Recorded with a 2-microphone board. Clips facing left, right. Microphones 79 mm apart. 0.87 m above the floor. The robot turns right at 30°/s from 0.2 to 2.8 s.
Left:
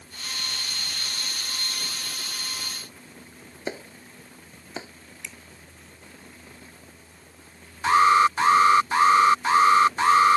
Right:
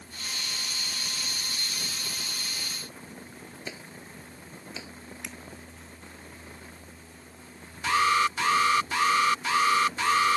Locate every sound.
3.7 s a clap: 40° left (ahead or behind)
5.2 s a finger snap: 60° right (ahead or behind)
7.8 s an alarm: 35° left (ahead or behind)